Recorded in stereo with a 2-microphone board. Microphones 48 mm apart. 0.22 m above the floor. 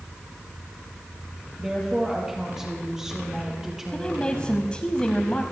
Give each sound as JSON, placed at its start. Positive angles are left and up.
{"t": 1.6, "sound": "a woman speaking", "side_deg": -10, "distance_m": 4.5}
{"t": 3.9, "sound": "a woman speaking", "side_deg": 20, "distance_m": 1.0}